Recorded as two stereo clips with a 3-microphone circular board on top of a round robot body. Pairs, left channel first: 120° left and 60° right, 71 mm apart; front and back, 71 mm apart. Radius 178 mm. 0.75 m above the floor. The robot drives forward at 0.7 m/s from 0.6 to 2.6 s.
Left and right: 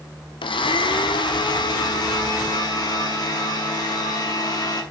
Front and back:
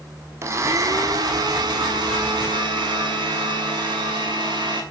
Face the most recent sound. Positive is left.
turn(degrees=160)